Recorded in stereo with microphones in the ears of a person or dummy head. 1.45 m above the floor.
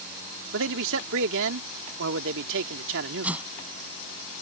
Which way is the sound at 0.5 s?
70° right (ahead or behind).